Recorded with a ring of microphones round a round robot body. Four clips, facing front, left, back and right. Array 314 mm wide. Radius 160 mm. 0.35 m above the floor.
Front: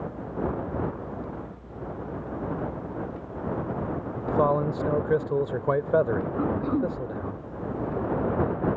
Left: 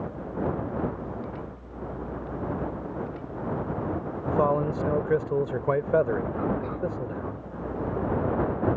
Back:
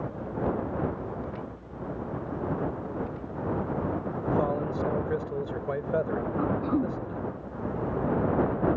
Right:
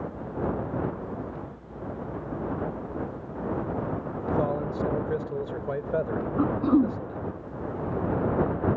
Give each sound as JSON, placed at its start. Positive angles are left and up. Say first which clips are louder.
{"t": 4.3, "sound": "a man speaking", "louder": "left 4 dB, front 5 dB", "azimuth_deg": 45}
{"t": 6.4, "sound": "throat clearing", "louder": "right 6 dB, back 1 dB", "azimuth_deg": -90}